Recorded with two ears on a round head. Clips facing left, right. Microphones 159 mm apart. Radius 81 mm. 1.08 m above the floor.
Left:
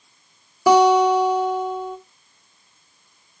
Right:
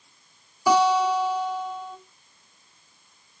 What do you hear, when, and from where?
0.7 s a guitar: 55° left (ahead or behind), 2 m